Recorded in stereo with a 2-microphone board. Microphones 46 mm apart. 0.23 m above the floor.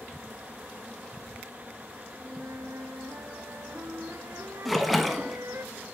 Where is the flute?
75° right (ahead or behind), 0.7 m.